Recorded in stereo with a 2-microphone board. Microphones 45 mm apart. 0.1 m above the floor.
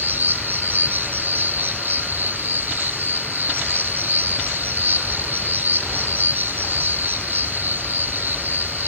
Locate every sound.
0.0 s an insect: 45° right (ahead or behind), 1.3 m